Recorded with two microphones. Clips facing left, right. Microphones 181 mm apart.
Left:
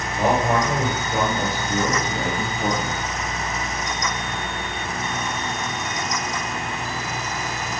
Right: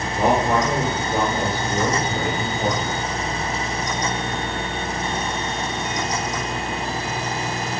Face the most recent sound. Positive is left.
turn(degrees=-65)  # may be behind; listen again after turning